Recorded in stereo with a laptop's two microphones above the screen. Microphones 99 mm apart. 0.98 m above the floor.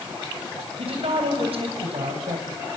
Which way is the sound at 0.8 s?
75° right (ahead or behind).